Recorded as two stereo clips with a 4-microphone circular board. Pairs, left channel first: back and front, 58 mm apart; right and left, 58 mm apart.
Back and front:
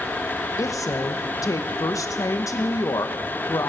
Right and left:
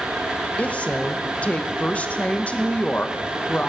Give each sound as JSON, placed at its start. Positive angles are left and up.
{"t": 0.6, "sound": "a woman speaking", "azimuth_deg": -160, "distance_m": 0.8}